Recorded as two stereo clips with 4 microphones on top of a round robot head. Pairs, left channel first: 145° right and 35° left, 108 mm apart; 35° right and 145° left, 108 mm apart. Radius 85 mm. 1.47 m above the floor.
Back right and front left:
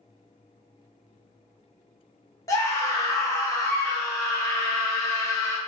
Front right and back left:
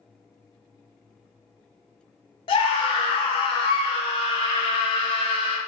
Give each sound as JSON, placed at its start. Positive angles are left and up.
{"t": 2.5, "sound": "a scream", "azimuth_deg": -80, "distance_m": 0.8}